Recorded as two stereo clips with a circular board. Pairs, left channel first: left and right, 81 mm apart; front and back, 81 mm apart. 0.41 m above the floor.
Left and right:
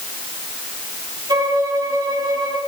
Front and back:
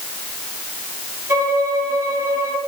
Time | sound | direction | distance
1.3 | a violin | 115° right | 8.5 m